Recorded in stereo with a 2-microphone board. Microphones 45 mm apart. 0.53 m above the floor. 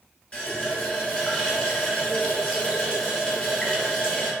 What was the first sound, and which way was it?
A running tap, 20° left (ahead or behind).